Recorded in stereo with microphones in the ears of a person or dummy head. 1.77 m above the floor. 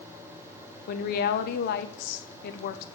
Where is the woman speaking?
60° left (ahead or behind), 0.6 m.